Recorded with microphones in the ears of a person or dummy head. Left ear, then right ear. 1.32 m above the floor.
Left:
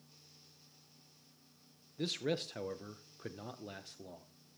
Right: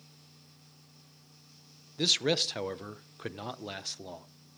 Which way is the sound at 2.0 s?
35° right (ahead or behind).